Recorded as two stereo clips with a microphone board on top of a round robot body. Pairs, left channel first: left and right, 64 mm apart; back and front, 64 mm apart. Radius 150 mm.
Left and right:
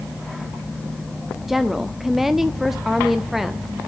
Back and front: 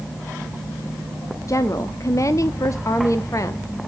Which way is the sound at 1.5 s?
175° right.